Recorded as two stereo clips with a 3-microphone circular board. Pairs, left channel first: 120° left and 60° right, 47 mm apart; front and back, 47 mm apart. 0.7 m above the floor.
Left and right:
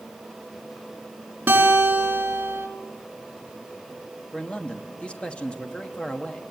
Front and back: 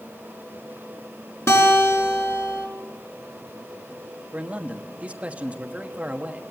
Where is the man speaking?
160° left, 1.3 m.